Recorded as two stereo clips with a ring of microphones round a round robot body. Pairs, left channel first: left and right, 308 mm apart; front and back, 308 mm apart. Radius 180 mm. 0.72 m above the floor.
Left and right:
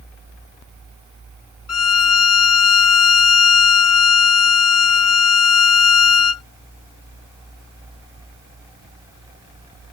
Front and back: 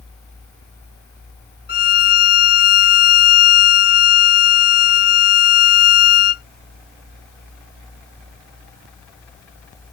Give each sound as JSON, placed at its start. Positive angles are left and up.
{"t": 1.7, "sound": "a violin", "azimuth_deg": 60}